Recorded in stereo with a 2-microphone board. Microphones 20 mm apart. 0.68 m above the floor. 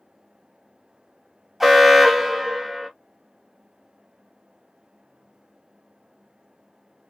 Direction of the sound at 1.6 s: 10° right (ahead or behind).